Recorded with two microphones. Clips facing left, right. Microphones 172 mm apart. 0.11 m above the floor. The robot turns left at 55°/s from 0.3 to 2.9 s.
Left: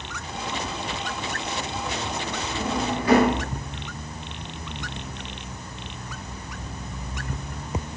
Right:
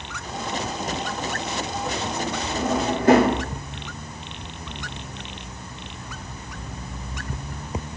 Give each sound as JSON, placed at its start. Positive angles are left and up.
{"t": 2.5, "sound": "a drawer", "side_deg": -65, "distance_m": 2.0}